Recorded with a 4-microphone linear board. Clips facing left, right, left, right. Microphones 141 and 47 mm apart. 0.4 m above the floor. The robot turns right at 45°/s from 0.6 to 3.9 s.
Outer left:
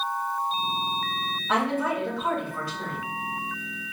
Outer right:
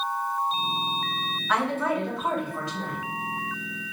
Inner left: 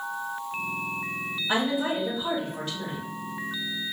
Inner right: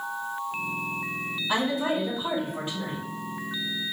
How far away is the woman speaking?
About 2.5 m.